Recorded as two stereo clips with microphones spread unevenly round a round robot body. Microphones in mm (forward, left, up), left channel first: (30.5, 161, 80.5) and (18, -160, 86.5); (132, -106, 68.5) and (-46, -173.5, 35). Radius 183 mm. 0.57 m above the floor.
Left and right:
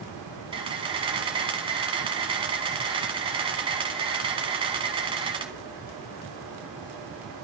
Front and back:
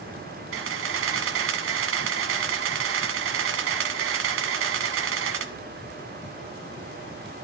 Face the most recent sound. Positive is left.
turn(degrees=-165)